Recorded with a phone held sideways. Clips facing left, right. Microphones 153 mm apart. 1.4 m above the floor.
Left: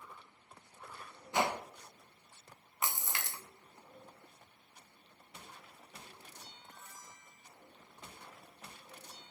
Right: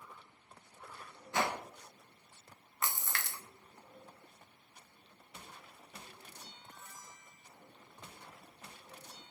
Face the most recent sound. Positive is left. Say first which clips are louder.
# even
turn(degrees=15)  # may be behind; listen again after turning